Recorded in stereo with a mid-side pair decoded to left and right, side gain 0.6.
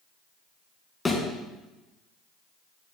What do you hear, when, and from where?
1.1 s a thud: 15° left, 3.5 m